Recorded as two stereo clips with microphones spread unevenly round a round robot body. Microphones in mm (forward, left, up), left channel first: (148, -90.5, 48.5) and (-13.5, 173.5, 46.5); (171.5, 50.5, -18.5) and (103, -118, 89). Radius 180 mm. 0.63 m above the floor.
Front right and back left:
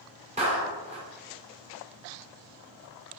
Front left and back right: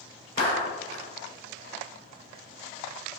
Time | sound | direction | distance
0.4 | a clap | 170° right | 1.7 m